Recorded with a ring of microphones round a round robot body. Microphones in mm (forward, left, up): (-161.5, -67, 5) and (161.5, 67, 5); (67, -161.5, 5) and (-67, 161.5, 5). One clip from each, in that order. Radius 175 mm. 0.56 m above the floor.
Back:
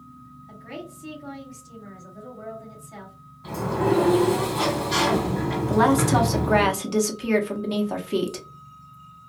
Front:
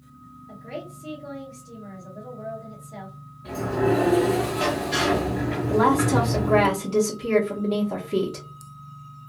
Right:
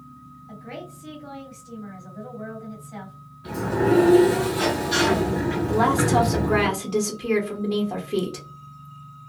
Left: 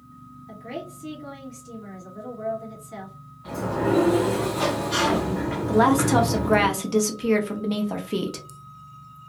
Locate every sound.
0.5 s a woman speaking: 150° left, 1.7 m
3.4 s a sliding door: 145° right, 1.6 m
5.7 s a woman speaking: 165° left, 0.7 m